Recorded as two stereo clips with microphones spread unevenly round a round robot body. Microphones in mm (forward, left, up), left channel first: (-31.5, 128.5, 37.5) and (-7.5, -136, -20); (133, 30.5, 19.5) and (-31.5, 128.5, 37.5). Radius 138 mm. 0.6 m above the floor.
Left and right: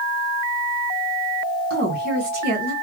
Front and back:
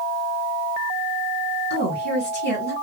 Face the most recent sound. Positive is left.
turn(degrees=-45)